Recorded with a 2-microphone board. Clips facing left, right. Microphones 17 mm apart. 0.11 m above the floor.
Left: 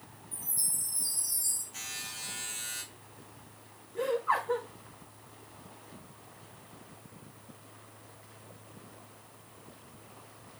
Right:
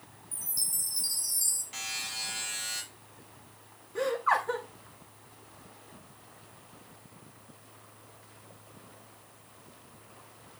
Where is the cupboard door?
No cupboard door in this recording.